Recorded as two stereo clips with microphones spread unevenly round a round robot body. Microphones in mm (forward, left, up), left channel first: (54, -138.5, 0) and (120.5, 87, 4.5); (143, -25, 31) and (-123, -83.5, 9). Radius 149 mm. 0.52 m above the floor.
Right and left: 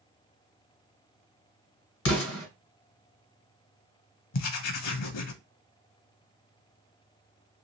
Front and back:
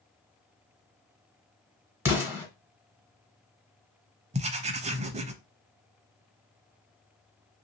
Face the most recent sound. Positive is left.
turn(degrees=-100)